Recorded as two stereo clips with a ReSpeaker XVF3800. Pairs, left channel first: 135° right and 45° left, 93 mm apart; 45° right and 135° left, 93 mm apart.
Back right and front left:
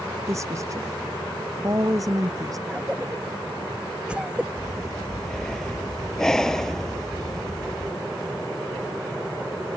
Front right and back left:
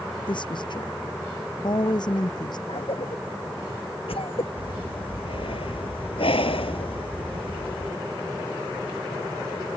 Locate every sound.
0.3 s a woman speaking: 10° right; by 2.6 s 5° right
2.7 s a cough: 35° right
4.6 s breathing: 50° right